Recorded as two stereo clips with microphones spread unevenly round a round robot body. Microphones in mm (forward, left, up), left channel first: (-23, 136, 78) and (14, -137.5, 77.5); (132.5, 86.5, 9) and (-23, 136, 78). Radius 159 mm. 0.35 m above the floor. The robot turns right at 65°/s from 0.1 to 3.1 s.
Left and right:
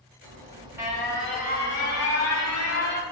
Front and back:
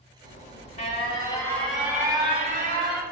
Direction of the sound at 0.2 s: 40° right.